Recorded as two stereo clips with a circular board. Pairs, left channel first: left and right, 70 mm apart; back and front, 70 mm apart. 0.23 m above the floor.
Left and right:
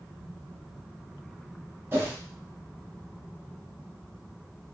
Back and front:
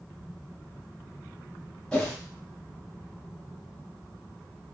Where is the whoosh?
110° right, 1.8 m.